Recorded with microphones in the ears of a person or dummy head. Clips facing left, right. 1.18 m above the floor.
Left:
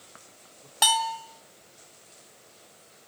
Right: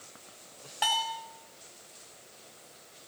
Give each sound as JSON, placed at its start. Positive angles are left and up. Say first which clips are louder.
{"t": 0.8, "sound": "a bell", "louder": "left 5 dB", "side_deg": 60, "distance_m": 2.0}